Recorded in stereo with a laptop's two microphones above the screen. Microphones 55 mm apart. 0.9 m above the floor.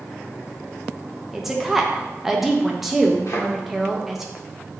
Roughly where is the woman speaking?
Centre.